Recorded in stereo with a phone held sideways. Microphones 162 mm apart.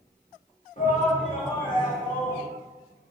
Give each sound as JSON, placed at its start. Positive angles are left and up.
{"t": 0.8, "sound": "a shout", "side_deg": 50, "distance_m": 2.0}